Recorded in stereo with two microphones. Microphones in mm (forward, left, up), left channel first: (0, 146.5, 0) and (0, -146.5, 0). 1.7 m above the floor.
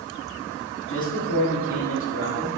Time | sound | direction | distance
0.9 | a man speaking | 75° left (ahead or behind) | 3.5 m